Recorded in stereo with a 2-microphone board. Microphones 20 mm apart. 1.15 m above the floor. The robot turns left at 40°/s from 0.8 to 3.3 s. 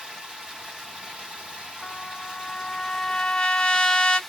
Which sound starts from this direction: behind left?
A trumpet, at 1.8 s.